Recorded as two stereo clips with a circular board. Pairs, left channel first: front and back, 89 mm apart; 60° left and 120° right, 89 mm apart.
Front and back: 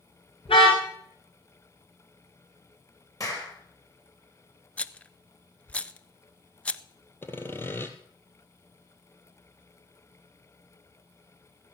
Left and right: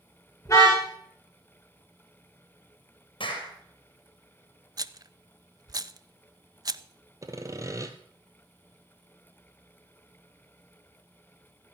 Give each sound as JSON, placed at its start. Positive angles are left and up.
{"t": 0.5, "sound": "a car horn", "azimuth_deg": 5, "distance_m": 7.5}
{"t": 3.2, "sound": "a clap", "azimuth_deg": 45, "distance_m": 4.0}
{"t": 4.8, "sound": "a rattle", "azimuth_deg": -75, "distance_m": 0.5}
{"t": 7.2, "sound": "sawing", "azimuth_deg": -65, "distance_m": 1.5}